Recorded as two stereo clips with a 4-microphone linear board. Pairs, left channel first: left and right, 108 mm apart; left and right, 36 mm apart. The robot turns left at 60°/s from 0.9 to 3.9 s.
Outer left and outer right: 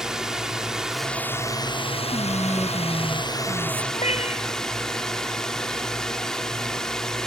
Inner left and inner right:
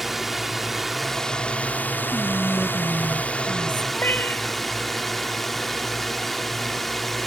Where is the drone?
175° right; by 7.3 s 5° left.